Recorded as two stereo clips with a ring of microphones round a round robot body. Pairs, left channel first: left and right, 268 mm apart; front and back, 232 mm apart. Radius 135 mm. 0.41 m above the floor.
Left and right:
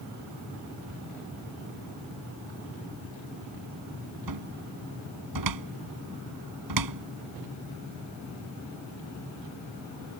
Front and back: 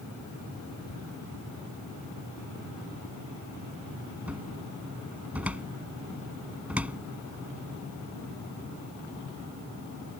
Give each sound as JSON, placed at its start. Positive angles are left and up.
{"t": 4.3, "sound": "a cupboard door", "azimuth_deg": -95}